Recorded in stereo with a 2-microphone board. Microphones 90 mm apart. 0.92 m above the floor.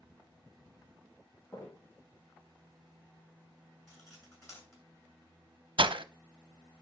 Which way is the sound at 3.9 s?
35° left (ahead or behind).